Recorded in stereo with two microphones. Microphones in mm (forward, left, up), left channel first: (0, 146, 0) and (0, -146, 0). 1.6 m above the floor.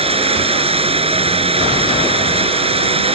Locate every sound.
0.0 s running water: 20° right (ahead or behind)